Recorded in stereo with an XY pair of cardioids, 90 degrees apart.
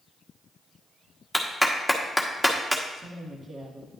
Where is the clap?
5° right, 1.4 m.